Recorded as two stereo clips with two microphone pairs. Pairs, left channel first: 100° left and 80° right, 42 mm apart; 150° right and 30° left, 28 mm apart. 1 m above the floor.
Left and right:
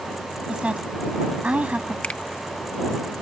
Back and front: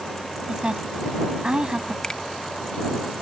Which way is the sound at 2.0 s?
155° left.